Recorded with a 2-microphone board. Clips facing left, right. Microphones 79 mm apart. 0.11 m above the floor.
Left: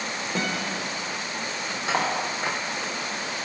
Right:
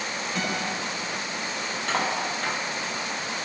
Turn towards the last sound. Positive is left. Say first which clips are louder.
# left 2 dB
turn(degrees=15)  # may be behind; listen again after turning